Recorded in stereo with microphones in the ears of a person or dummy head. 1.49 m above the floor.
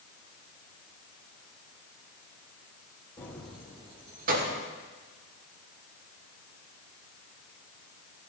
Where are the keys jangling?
15° left (ahead or behind), 1.3 m; by 4.6 s 60° right (ahead or behind), 1.3 m.